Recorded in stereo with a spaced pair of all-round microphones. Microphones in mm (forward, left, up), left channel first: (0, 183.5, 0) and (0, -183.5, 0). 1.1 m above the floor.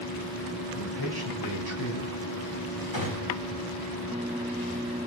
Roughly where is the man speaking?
Left.